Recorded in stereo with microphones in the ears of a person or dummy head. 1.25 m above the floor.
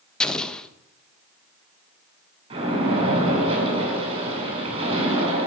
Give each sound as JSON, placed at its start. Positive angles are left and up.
{"t": 0.2, "sound": "an explosion", "side_deg": 5, "distance_m": 0.9}
{"t": 2.5, "sound": "a splash", "side_deg": -30, "distance_m": 5.0}